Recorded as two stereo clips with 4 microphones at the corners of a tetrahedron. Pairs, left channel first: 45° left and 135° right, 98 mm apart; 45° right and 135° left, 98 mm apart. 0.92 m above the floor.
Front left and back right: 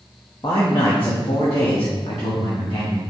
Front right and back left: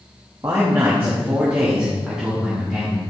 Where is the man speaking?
80° left, 1.3 m; by 3.0 s 45° left, 2.5 m.